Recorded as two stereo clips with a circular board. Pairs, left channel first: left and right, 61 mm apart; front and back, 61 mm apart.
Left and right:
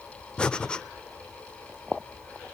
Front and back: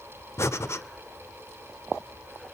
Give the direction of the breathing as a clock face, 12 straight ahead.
11 o'clock.